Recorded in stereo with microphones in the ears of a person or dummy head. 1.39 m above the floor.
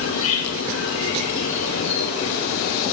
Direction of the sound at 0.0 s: 65° left (ahead or behind).